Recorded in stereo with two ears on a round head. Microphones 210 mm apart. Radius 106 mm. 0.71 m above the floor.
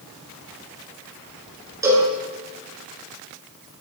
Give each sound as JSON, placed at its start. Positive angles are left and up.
{"t": 1.8, "sound": "a cowbell", "side_deg": -15, "distance_m": 7.5}